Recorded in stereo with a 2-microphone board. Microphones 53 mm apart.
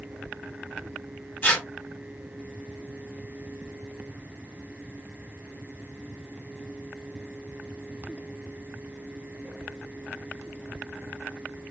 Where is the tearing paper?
25° left (ahead or behind), 2 m.